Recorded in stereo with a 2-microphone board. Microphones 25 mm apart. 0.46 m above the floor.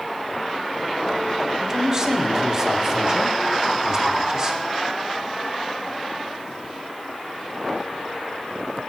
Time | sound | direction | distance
1.6 | a man speaking | 25° right (ahead or behind) | 0.8 m